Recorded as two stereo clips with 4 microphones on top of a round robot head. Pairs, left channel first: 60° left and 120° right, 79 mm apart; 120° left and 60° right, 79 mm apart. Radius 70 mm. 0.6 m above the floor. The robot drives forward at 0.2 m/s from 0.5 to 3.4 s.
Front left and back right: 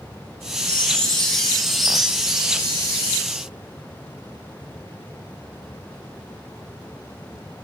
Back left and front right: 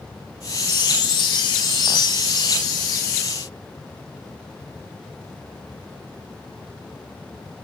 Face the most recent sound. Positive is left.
turn(degrees=160)